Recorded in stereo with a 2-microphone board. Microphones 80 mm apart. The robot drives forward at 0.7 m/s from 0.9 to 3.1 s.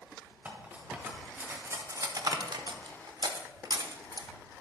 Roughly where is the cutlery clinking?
Right.